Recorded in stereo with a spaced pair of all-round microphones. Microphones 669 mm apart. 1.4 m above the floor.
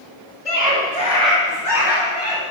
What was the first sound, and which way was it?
A scream, 75° left (ahead or behind).